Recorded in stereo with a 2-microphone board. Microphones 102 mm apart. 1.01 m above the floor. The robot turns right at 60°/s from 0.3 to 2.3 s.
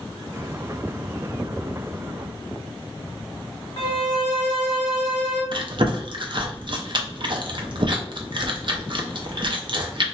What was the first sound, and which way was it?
A violin, 60° left (ahead or behind).